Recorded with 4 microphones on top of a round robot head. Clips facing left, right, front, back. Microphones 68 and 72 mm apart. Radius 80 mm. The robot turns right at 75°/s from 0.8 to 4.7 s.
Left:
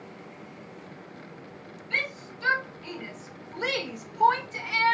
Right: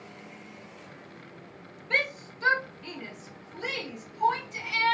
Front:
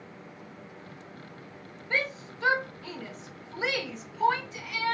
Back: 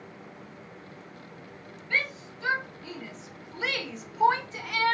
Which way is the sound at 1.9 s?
65° right.